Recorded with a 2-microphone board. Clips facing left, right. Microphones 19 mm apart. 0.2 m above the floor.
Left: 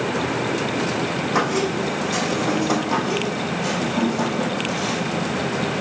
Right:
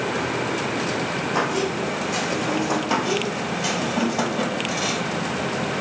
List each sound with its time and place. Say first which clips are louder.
1.4 s a squeak: left 2 dB; 25° left (ahead or behind), 3 m
2.9 s a squeak: even; 40° right (ahead or behind), 2 m